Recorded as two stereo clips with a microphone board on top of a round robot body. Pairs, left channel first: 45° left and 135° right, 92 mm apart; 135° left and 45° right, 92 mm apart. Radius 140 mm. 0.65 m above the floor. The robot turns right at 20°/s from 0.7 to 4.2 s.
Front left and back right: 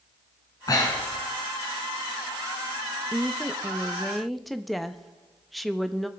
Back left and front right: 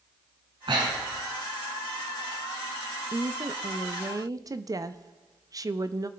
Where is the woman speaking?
65° right, 0.7 m; by 6.1 s 45° right, 0.7 m.